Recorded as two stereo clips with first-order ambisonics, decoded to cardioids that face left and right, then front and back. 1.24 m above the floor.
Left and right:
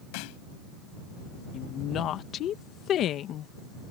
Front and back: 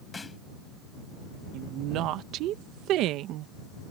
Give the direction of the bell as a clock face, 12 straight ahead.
No bell in this recording.